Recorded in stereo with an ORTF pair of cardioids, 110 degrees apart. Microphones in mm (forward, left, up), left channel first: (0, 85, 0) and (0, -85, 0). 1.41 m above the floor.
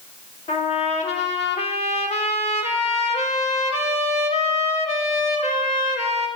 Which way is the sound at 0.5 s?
40° left.